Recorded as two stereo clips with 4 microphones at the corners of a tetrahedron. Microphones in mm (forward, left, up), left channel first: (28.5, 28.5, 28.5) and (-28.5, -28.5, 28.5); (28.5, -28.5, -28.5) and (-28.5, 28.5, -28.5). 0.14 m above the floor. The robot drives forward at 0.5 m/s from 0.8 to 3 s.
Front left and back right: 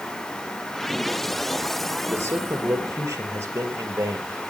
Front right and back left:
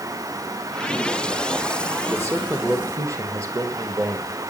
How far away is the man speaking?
About 3.5 m.